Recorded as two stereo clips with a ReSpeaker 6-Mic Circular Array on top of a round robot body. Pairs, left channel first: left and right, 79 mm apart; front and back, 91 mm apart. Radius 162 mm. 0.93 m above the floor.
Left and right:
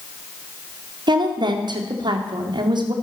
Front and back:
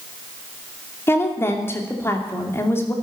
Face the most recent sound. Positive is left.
turn(degrees=-65)